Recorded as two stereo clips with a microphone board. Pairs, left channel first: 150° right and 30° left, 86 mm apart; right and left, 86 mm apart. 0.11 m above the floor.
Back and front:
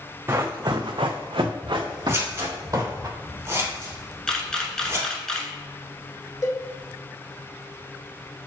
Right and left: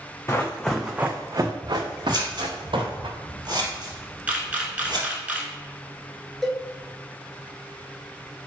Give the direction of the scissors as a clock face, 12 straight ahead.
9 o'clock.